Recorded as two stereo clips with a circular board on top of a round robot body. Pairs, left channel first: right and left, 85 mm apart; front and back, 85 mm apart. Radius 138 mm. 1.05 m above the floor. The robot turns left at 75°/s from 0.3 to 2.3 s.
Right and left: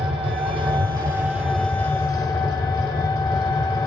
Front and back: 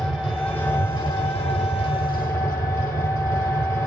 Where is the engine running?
90° left, 2.5 m; by 3.9 s 60° right, 2.5 m.